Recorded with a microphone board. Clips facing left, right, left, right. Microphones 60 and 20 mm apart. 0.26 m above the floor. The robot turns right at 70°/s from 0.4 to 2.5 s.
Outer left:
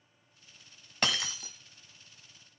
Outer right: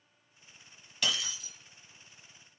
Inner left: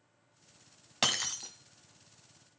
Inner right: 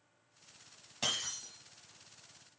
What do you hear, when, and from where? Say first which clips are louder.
1.0 s breaking glass: outer left 2 dB, inner left 5 dB; 70° left, 1.2 m; by 1.5 s 105° left, 1.2 m